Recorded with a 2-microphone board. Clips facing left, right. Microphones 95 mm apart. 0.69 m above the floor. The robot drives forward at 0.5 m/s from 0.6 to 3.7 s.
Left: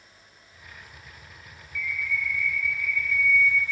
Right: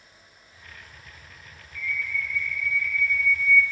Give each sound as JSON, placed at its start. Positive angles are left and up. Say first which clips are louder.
{"t": 1.8, "sound": "a bird", "louder": "left 1 dB", "side_deg": 75, "distance_m": 1.5}